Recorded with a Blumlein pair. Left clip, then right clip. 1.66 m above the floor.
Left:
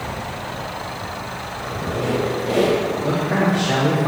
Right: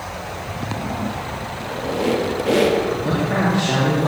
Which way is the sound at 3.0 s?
5° right.